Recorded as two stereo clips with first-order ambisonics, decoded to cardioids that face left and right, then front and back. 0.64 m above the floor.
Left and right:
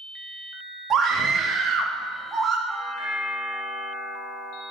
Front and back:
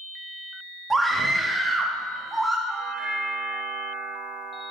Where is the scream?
110° right, 0.7 m.